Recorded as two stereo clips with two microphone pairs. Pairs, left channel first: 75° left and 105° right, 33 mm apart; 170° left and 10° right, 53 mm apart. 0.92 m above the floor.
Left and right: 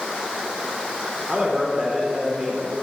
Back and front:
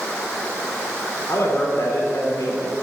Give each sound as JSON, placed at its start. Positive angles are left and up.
{"t": 1.3, "sound": "a man speaking", "azimuth_deg": -170, "distance_m": 3.5}